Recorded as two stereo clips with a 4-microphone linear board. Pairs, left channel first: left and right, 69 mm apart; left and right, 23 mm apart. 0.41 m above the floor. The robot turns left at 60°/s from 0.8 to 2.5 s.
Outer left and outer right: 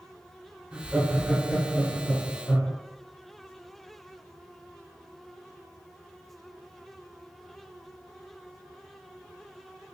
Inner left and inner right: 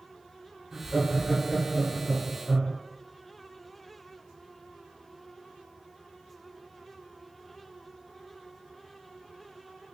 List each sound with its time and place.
0.7 s laughter: 150° right, 1.1 m; by 2.7 s 110° left, 1.1 m